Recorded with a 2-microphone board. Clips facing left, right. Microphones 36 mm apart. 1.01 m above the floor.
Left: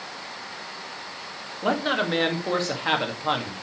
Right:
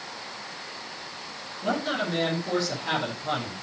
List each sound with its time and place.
1.6 s a man speaking: 40° left (ahead or behind), 2.0 m